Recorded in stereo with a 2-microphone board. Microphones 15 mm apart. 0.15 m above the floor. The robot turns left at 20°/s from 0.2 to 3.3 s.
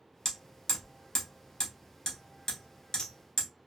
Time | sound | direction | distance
0.2 | hammering | 45° left (ahead or behind) | 1.3 m